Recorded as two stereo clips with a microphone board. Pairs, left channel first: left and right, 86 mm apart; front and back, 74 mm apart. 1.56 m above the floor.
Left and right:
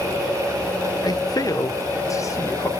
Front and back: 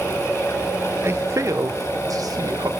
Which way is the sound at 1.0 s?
125° left.